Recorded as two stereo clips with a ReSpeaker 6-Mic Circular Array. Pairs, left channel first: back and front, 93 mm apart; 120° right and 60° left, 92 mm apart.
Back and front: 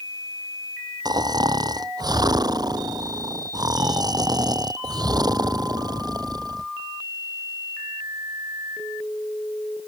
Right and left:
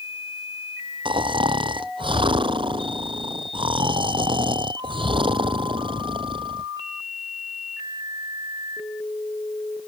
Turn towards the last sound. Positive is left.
turn(degrees=40)